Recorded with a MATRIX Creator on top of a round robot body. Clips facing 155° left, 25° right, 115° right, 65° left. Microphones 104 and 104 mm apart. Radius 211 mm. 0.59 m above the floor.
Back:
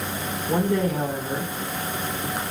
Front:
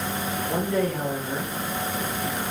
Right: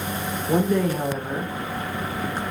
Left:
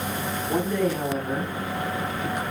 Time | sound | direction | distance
0.5 | a woman speaking | 130° right | 2.5 m